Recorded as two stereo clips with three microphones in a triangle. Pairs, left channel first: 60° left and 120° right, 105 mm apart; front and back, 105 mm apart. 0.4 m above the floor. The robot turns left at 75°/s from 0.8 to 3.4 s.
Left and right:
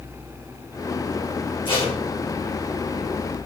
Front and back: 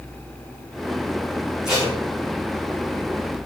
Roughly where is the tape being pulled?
Left.